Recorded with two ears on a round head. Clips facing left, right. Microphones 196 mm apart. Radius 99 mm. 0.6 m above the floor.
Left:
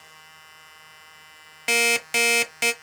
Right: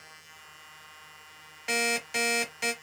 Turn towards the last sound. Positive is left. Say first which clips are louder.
# left 5 dB
turn(degrees=80)